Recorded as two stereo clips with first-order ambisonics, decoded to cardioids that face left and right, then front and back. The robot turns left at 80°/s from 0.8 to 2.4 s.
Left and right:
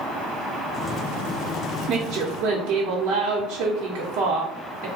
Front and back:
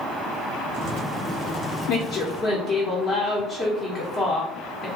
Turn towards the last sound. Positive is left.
turn(degrees=-65)